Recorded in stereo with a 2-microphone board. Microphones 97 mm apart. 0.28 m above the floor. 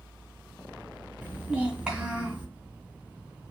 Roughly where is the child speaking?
Centre.